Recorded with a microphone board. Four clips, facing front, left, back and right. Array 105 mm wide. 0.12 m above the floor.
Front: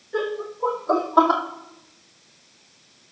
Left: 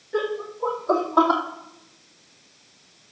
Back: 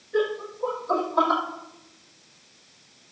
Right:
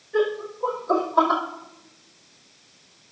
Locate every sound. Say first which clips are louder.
0.1 s laughter: right 3 dB, back 1 dB; 55° left, 5 m; by 1.4 s 40° left, 4.5 m